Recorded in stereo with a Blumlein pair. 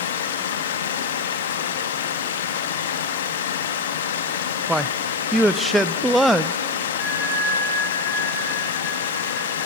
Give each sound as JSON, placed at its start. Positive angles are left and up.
{"t": 0.0, "sound": "running water", "azimuth_deg": 60, "distance_m": 1.4}
{"t": 4.7, "sound": "a man speaking", "azimuth_deg": -5, "distance_m": 0.6}
{"t": 7.0, "sound": "a bell", "azimuth_deg": 40, "distance_m": 9.5}